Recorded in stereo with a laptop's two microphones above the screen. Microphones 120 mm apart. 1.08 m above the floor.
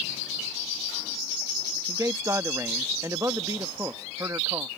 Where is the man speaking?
25° right (ahead or behind).